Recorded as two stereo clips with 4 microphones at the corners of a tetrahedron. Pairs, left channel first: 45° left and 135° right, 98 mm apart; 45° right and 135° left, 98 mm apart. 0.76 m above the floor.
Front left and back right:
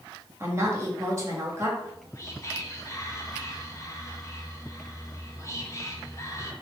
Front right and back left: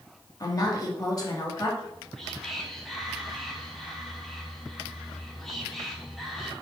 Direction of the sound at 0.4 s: 80° right.